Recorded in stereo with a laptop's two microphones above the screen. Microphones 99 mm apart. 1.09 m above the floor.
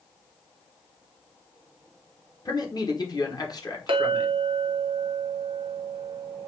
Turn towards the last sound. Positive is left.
turn(degrees=-60)  # may be behind; listen again after turning